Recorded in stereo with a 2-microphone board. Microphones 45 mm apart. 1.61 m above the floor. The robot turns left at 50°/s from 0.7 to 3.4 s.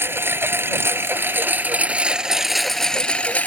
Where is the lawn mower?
85° right; by 3.5 s 140° left.